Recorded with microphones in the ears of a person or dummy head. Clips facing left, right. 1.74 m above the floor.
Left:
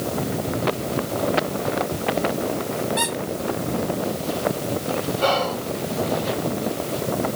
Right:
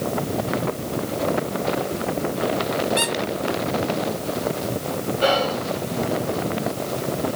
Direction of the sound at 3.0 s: 40° right (ahead or behind).